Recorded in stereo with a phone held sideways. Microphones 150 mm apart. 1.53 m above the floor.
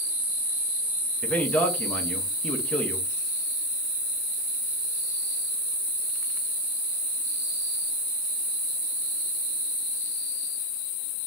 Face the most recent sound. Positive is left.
turn(degrees=10)  # may be behind; listen again after turning